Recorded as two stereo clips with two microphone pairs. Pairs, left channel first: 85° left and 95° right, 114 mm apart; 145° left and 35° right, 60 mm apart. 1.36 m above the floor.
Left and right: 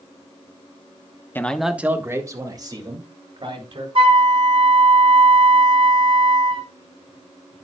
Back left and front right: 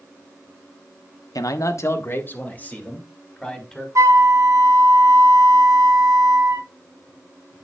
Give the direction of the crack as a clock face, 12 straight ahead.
No crack in this recording.